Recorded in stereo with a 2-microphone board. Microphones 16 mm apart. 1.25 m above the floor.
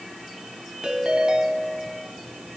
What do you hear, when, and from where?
0.8 s a ringtone: 65° right (ahead or behind), 5 m